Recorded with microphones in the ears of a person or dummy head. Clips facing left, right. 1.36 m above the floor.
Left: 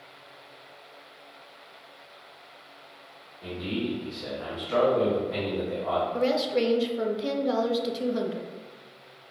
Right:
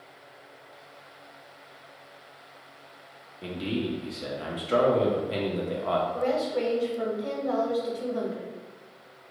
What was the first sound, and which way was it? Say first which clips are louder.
A man speaking: right 1 dB; 50° right (ahead or behind).